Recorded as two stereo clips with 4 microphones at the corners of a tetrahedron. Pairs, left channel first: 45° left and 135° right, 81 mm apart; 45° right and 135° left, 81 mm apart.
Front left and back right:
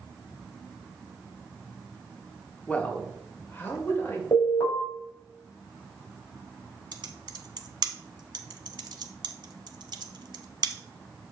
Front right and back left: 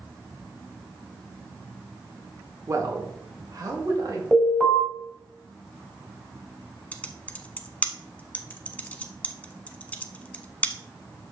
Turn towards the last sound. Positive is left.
turn(degrees=-120)